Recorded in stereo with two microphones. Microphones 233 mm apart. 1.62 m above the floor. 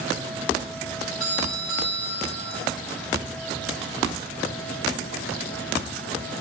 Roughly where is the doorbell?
Left.